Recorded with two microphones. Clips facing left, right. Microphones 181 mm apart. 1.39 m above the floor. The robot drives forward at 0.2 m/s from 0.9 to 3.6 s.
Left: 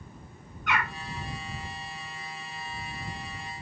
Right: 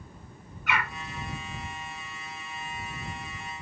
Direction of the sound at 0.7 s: 5° right (ahead or behind).